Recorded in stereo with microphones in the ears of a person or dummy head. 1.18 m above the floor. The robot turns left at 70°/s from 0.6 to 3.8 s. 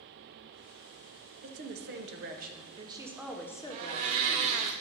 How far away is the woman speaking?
About 0.8 m.